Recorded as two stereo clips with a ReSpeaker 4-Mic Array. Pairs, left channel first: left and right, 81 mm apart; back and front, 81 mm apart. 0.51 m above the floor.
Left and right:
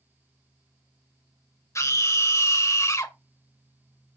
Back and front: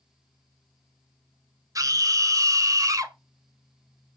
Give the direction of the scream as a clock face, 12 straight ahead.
11 o'clock.